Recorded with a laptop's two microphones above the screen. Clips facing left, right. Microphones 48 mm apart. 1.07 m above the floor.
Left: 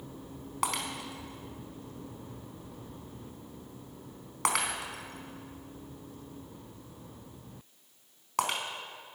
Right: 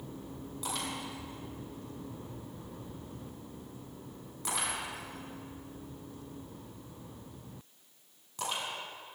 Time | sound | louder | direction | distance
0.6 | breaking glass | left 5 dB | 70° left (ahead or behind) | 4 m